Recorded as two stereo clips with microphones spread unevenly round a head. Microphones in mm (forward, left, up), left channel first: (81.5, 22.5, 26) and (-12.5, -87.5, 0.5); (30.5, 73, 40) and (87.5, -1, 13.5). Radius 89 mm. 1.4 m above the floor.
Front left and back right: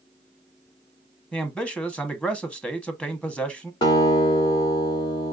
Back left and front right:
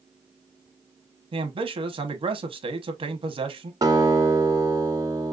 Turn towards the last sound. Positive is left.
turn(degrees=0)